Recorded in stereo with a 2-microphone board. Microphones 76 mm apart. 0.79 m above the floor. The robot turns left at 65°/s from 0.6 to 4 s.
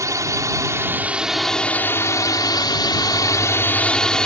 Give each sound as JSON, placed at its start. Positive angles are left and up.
{"t": 0.0, "sound": "a drone", "azimuth_deg": -130}